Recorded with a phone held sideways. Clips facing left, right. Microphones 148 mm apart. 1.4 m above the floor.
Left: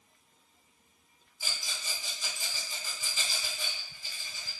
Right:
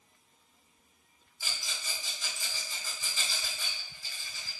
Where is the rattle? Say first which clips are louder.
Left 1 dB; 20° left (ahead or behind), 1.3 m.